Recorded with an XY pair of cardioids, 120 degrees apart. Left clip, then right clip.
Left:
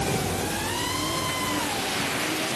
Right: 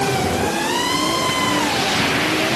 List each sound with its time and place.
Only background noise.